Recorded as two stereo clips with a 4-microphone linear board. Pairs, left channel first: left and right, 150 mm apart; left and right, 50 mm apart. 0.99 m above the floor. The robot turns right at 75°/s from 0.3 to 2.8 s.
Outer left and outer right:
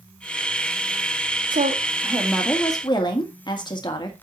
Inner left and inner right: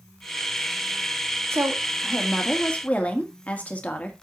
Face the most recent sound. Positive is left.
turn(degrees=30)